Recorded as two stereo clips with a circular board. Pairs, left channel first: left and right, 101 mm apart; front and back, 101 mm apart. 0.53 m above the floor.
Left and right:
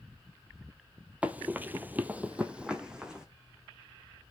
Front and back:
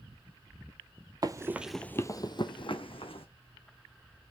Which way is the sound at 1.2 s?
160° right.